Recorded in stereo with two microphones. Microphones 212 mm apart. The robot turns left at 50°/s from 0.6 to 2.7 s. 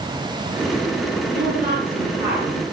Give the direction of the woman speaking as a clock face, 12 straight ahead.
4 o'clock.